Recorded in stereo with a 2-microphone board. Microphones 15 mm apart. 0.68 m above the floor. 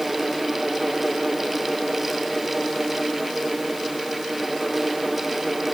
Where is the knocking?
No knocking in this recording.